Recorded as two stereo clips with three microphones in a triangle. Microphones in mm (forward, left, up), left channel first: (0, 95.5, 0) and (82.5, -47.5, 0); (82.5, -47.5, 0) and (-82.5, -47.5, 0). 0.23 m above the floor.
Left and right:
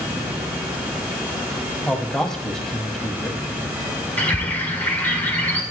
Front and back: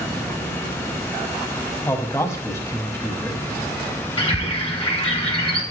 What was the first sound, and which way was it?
A man speaking, 40° left.